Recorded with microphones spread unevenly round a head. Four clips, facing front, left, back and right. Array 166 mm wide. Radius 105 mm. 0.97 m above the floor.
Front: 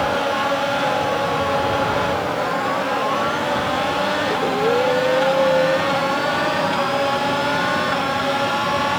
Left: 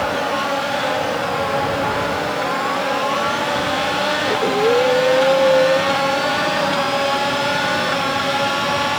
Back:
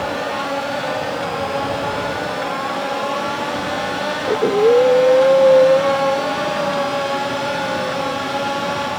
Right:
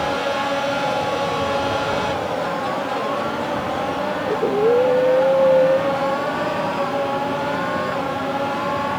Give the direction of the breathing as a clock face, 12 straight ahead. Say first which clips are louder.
Even, back 9 dB; 5 o'clock.